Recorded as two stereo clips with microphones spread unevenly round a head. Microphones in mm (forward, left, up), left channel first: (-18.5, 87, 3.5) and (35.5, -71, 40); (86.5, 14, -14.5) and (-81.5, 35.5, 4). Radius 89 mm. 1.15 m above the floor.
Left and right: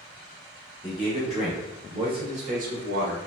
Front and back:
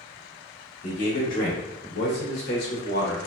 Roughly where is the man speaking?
Ahead left.